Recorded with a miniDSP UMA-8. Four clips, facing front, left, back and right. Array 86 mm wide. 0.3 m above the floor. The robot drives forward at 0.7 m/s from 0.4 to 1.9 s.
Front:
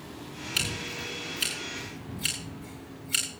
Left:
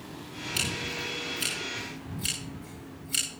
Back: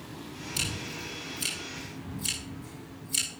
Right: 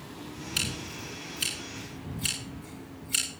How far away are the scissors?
About 10 m.